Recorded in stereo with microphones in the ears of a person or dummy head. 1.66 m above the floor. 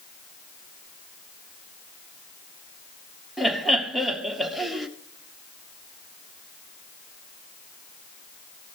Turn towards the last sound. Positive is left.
turn(degrees=0)  # may be behind; listen again after turning